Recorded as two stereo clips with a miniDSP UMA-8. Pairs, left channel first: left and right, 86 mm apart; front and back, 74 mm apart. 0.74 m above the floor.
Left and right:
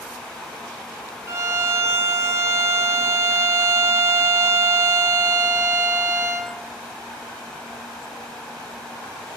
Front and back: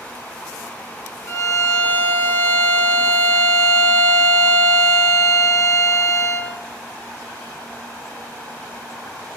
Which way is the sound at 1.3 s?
40° right.